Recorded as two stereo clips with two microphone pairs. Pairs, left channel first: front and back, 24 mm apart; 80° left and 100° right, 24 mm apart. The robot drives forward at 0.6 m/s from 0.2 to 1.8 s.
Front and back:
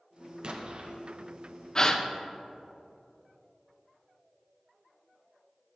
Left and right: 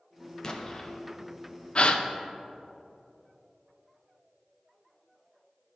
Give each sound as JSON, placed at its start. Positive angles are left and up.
{"t": 0.4, "sound": "an explosion", "azimuth_deg": 140, "distance_m": 0.7}
{"t": 1.8, "sound": "a gasp", "azimuth_deg": 55, "distance_m": 0.5}